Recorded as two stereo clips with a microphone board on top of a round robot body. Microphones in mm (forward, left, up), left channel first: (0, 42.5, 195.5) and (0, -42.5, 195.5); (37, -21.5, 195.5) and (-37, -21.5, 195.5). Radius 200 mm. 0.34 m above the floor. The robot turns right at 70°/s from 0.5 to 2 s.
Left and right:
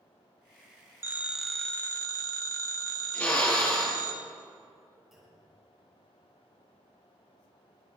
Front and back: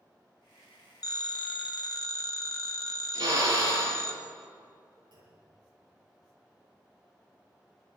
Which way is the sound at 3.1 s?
160° left.